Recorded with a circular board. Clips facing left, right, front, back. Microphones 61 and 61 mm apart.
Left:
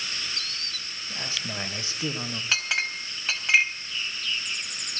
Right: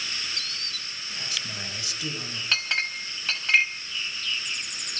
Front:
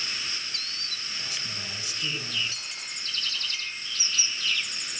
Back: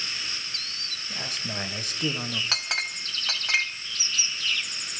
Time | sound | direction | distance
1.1 | a man speaking | 145° left | 3.5 m
2.5 | a clink | 175° left | 3 m